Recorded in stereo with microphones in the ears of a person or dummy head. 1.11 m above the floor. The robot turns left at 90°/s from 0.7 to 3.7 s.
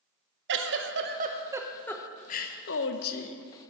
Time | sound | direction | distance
0.5 | a giggle | 85° right | 0.9 m